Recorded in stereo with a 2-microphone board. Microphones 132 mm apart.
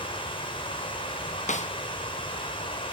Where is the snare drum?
65° left (ahead or behind), 1.5 m.